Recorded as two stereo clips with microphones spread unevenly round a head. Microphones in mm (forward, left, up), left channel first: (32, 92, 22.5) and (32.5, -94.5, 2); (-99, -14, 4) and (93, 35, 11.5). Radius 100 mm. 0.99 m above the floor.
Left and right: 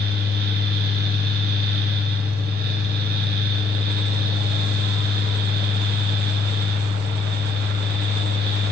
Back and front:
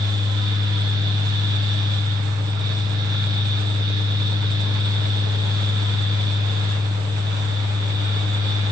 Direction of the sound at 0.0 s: 55° right.